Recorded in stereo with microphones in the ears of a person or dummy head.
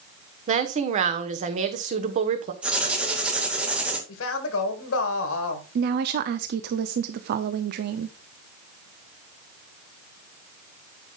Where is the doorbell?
No doorbell in this recording.